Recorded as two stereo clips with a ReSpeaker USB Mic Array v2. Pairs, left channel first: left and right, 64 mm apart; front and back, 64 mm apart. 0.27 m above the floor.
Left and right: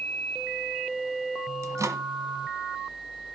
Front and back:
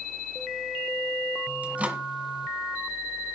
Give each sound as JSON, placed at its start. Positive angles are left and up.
{"t": 1.6, "sound": "a microwave", "azimuth_deg": -115, "distance_m": 1.5}